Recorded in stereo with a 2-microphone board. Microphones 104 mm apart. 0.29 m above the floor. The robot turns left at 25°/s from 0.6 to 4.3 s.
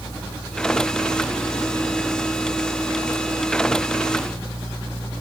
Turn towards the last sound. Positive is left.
No sound to turn to.